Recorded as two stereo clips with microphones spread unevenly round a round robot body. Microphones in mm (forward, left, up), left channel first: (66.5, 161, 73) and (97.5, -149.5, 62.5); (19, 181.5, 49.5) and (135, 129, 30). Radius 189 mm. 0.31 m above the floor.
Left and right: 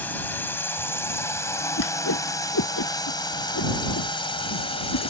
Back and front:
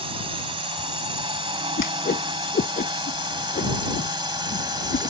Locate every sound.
0.0 s a drone: 10° left; by 5.1 s 25° left
1.8 s a whoosh: 150° left